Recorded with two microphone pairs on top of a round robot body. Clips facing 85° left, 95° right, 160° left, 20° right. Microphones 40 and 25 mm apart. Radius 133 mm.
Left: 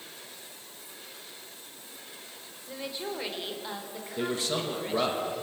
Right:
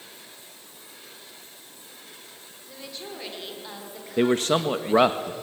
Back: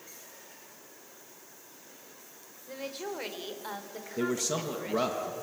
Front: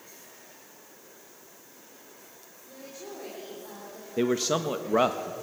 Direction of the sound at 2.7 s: 160° left.